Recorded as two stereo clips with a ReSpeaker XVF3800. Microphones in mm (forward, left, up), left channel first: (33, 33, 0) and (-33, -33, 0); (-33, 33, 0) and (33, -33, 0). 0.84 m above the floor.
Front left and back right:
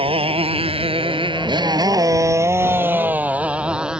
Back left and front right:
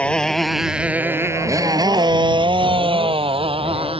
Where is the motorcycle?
150° right; by 4.0 s 55° right.